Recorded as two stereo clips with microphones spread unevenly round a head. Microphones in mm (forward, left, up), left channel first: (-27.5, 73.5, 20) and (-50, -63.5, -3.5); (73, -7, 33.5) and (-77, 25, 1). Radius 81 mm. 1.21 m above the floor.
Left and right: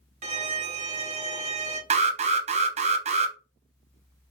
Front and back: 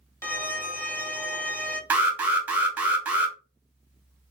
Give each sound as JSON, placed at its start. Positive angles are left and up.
{"t": 0.2, "sound": "a violin", "azimuth_deg": -100, "distance_m": 0.8}
{"t": 1.9, "sound": "an alarm", "azimuth_deg": -120, "distance_m": 0.6}